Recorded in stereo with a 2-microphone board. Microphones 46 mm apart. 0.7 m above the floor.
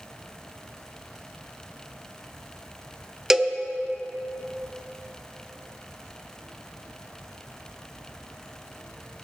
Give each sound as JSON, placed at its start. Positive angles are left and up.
{"t": 3.3, "sound": "a cowbell", "side_deg": -10, "distance_m": 0.6}